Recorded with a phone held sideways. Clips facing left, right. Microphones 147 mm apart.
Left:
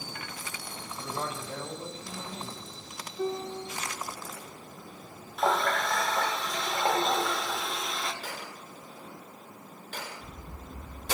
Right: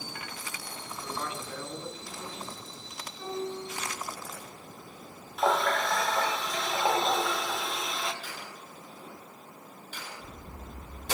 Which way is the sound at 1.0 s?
40° left (ahead or behind).